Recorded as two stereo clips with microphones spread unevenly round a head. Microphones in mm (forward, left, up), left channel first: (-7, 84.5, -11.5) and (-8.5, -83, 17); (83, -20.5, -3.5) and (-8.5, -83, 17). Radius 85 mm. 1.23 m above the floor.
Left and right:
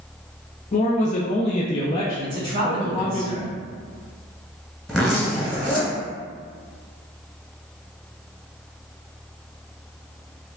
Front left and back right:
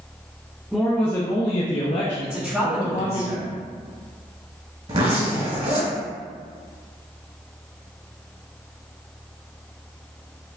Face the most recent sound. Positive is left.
turn(degrees=-175)